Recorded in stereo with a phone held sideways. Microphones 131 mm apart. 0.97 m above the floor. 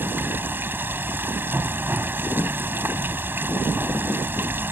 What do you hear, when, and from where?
0.0 s running water: 15° right (ahead or behind)